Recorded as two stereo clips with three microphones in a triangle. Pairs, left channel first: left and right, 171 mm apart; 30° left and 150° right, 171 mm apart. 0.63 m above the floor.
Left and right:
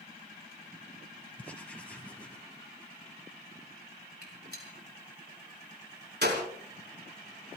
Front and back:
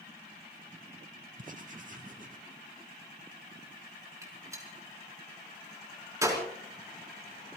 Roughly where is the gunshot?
Right.